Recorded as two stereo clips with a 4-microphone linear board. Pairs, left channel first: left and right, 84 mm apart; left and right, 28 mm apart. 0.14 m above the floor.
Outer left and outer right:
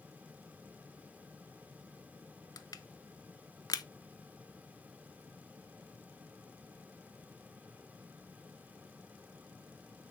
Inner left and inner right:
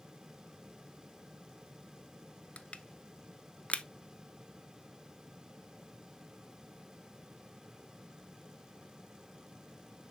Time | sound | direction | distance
2.6 | crushing | 45° left (ahead or behind) | 0.5 m